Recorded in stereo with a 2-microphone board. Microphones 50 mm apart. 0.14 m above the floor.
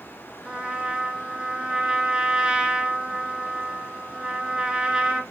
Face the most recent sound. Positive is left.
turn(degrees=-15)  # may be behind; listen again after turning